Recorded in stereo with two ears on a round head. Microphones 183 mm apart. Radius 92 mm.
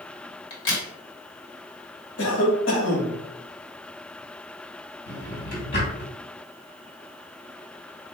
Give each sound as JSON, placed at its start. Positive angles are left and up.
{"t": 0.5, "sound": "a crack", "side_deg": 60, "distance_m": 1.6}
{"t": 2.2, "sound": "a cough", "side_deg": 60, "distance_m": 1.5}
{"t": 5.1, "sound": "a drawer", "side_deg": 45, "distance_m": 2.0}